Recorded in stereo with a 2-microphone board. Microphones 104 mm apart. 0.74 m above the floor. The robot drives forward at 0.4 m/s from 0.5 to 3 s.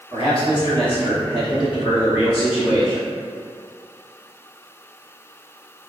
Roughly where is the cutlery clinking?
I don't hear cutlery clinking.